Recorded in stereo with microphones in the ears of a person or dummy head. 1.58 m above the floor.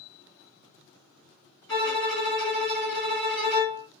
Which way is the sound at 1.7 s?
20° left (ahead or behind).